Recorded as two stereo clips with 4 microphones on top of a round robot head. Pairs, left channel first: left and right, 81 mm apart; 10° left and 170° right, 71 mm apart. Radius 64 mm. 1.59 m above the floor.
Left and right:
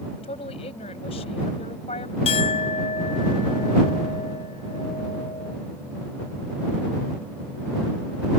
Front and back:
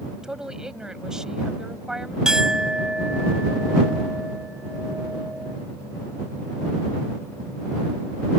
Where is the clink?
110° left.